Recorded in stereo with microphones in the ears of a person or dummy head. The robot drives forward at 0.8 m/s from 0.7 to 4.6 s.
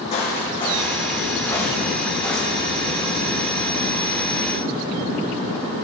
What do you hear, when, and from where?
0.1 s footsteps: 35° left (ahead or behind), 3 m; by 2.8 s 5° left (ahead or behind), 6 m